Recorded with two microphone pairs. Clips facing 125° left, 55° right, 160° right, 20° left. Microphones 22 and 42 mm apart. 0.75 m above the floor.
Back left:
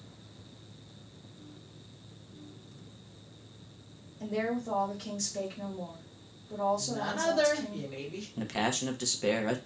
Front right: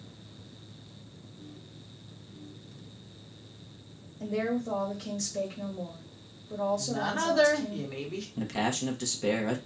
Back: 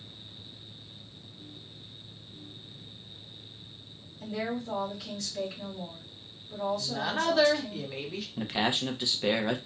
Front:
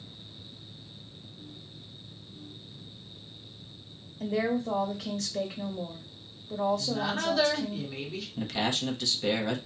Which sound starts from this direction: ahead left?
A woman speaking, at 4.2 s.